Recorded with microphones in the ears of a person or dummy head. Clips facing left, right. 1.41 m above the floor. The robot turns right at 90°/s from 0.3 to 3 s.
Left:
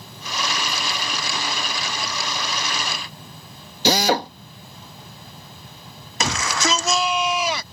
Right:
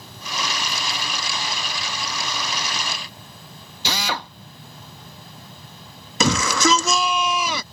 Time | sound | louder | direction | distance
3.9 | a drill | left 9 dB | 40° left (ahead or behind) | ?
6.2 | a shout | right 5 dB | 80° right | ?